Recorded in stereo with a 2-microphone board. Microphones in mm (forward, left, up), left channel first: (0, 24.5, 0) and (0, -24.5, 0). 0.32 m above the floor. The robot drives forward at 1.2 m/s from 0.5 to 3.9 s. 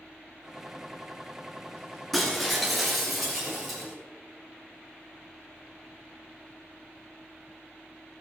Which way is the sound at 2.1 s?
Centre (ahead or behind).